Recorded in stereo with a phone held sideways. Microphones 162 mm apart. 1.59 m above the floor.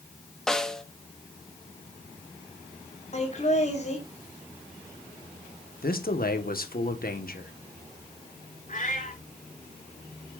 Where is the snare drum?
5° left (ahead or behind), 1.0 m.